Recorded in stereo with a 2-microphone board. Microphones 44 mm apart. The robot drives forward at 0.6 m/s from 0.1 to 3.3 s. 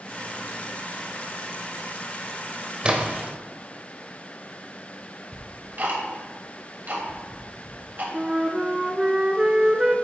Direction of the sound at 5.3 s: 45° right (ahead or behind).